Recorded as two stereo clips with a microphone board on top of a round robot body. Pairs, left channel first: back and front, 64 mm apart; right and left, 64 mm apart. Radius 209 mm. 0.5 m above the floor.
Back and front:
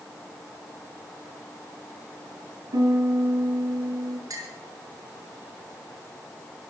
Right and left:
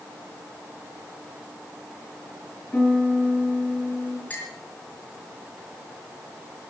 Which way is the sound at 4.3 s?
25° right.